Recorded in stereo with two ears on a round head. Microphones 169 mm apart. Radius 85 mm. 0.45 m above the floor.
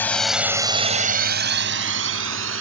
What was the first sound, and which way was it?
A drone, 10° left (ahead or behind).